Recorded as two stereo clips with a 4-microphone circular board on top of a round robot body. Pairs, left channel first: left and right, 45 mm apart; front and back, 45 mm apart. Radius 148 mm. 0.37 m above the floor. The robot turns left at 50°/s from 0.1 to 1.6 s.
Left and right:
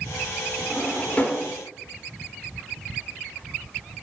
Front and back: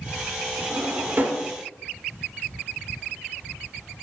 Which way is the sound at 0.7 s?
165° left.